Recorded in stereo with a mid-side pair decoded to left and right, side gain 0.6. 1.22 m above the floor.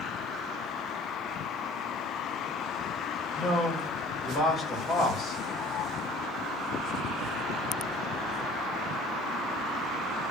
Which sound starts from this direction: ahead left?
A man speaking, at 3.4 s.